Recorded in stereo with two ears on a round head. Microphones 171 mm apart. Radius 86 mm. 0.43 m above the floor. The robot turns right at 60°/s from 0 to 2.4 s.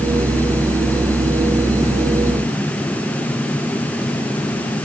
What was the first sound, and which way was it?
Only background noise.